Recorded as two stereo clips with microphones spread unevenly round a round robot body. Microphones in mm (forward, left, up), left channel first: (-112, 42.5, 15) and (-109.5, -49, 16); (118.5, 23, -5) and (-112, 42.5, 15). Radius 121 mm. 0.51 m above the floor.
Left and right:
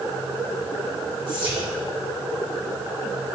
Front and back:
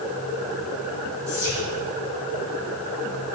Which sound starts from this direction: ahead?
Whispering, at 1.3 s.